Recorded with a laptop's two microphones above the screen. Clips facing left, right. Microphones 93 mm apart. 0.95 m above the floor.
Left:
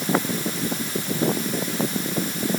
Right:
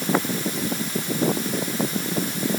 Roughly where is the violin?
I don't hear a violin.